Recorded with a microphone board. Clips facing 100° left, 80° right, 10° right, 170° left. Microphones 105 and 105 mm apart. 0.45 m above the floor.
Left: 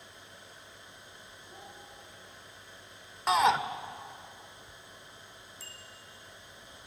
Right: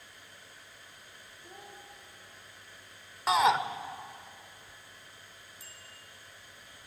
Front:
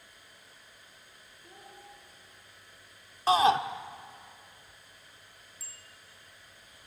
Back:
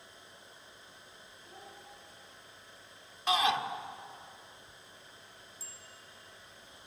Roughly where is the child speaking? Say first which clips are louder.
Right 1 dB, even; ahead right.